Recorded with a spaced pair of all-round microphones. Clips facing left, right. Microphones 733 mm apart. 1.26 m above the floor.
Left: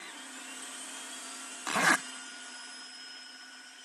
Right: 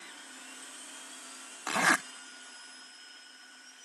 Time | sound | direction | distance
1.7 | a zipper | centre (ahead or behind) | ?